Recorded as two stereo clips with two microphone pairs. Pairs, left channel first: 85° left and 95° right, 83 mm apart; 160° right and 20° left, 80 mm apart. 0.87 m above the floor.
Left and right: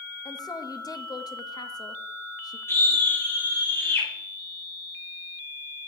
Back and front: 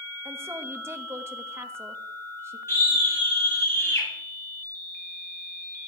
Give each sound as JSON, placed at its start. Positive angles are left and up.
{"t": 0.2, "sound": "a woman speaking", "azimuth_deg": 70, "distance_m": 1.0}
{"t": 2.7, "sound": "a scream", "azimuth_deg": 145, "distance_m": 7.0}